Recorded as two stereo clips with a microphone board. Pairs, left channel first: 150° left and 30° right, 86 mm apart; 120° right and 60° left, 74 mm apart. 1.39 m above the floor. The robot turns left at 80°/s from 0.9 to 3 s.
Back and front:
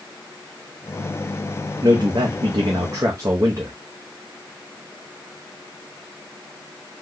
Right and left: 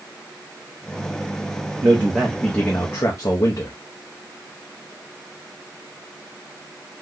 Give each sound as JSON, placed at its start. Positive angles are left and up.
{"t": 1.8, "sound": "a man speaking", "azimuth_deg": 20, "distance_m": 0.6}